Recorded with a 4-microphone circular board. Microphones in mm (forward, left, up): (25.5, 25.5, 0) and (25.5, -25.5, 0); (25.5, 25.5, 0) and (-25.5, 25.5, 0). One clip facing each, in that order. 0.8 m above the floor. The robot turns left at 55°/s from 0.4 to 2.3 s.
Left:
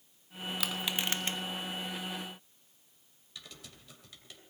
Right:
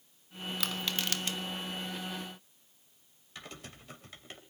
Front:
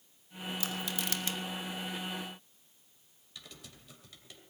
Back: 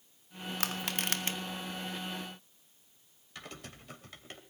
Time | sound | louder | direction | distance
0.6 | crushing | left 1 dB, back 3 dB | 175° left | 1.8 m
3.4 | typing on a keyboard | right 4 dB, back 6 dB | 140° right | 2.5 m